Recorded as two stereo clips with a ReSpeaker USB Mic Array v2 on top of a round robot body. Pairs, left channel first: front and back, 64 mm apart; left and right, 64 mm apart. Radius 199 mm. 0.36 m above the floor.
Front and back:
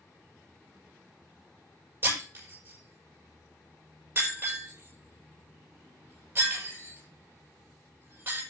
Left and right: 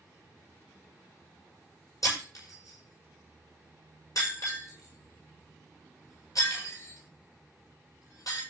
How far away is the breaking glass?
About 7.5 m.